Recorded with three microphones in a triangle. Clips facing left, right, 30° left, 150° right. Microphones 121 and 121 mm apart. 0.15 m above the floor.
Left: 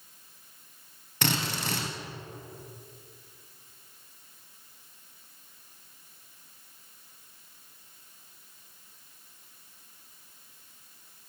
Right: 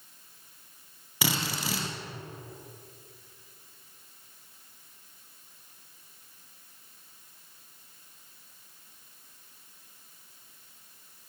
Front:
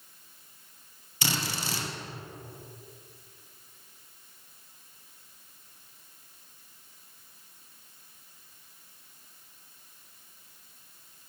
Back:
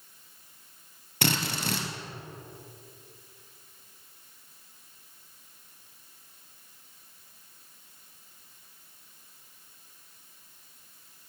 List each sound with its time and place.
1.2 s a drill: 175° right, 2.5 m